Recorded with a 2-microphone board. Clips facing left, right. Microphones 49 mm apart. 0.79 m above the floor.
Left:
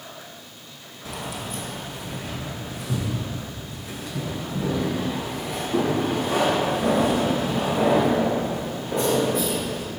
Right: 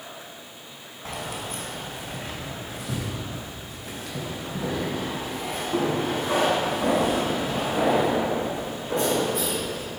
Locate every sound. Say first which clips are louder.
1.1 s keys jangling: even; 55° right (ahead or behind), 2.5 m